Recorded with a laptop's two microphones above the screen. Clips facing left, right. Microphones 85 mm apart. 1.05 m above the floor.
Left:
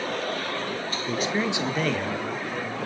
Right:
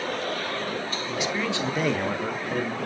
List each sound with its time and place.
1.1 s a man speaking: 50° left (ahead or behind), 1.3 m; by 2.8 s 60° right (ahead or behind), 1.8 m